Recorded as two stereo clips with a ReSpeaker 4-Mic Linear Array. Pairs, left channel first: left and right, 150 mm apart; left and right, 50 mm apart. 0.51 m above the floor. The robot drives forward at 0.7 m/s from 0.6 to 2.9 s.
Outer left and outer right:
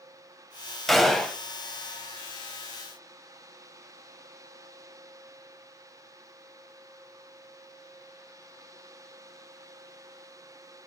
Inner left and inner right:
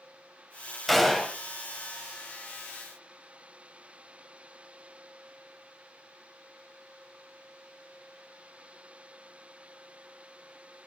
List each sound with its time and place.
0.9 s a gunshot: centre (ahead or behind), 0.7 m